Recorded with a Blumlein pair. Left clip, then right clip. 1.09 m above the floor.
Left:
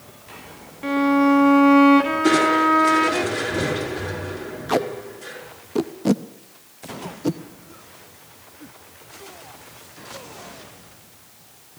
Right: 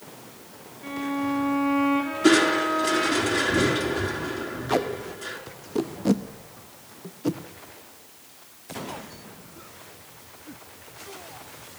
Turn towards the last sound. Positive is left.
turn(degrees=10)